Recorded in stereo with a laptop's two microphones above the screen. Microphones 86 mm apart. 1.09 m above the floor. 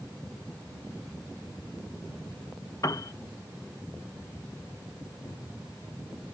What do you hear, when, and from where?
2.8 s a piano: 45° left (ahead or behind)